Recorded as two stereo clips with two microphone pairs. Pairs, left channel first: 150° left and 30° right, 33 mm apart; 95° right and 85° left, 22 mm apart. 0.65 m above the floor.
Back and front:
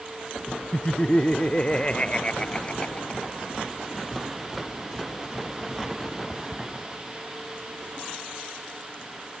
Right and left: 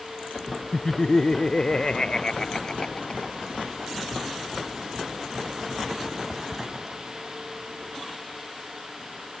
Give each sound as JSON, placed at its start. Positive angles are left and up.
{"t": 0.7, "sound": "laughter", "azimuth_deg": -150}